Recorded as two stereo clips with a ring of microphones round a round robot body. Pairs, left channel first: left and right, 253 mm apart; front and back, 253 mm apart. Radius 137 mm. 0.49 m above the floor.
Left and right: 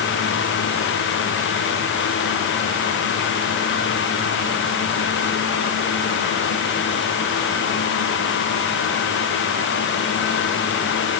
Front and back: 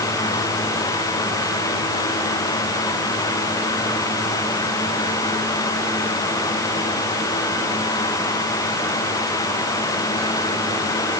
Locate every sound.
Only background noise.